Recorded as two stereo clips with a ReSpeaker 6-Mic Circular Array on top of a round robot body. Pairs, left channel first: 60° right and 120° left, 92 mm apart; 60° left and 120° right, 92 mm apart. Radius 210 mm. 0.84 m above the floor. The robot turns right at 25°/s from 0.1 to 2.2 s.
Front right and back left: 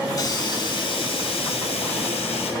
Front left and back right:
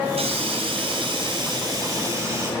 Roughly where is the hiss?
Behind right.